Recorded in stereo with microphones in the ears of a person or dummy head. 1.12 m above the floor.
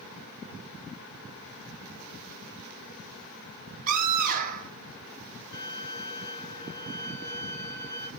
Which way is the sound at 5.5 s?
65° left (ahead or behind).